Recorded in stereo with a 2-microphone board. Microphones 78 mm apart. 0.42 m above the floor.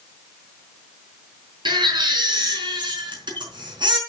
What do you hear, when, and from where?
1.6 s a baby crying: 80° right, 4 m